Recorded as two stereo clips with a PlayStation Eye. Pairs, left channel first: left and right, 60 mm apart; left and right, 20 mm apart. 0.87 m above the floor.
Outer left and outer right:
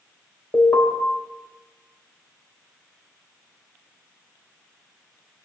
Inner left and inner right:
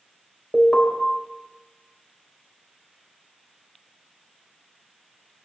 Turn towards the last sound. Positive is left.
turn(degrees=50)  # may be behind; listen again after turning